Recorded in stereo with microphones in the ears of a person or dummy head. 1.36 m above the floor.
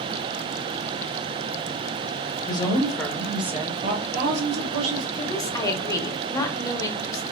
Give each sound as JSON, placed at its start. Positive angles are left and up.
{"t": 2.5, "sound": "a woman speaking", "side_deg": 25, "distance_m": 1.0}
{"t": 5.2, "sound": "a woman speaking", "side_deg": 15, "distance_m": 0.6}